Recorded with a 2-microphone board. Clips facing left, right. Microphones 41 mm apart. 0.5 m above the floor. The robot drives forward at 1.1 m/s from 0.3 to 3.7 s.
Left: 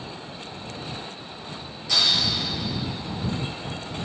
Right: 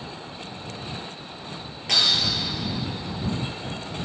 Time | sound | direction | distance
1.9 | breaking glass | 60° right (ahead or behind) | 4 m